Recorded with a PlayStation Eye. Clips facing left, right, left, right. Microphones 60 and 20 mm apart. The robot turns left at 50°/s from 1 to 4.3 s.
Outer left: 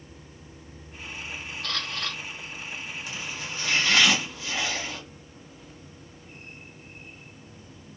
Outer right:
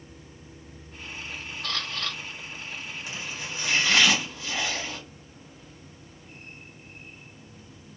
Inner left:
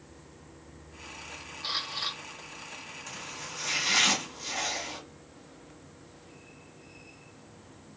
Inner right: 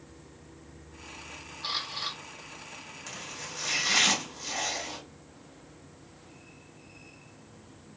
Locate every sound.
1.6 s a camera shutter: 20° right (ahead or behind), 1.6 m; by 2.2 s centre (ahead or behind), 1.6 m
3.1 s chopping: 25° right (ahead or behind), 1.7 m; by 5.0 s 5° left (ahead or behind), 1.7 m